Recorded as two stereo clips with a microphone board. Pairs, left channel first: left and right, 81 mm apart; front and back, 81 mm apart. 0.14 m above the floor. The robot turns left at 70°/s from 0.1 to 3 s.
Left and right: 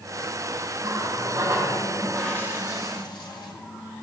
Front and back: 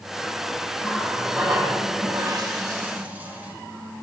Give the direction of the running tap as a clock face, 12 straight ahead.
3 o'clock.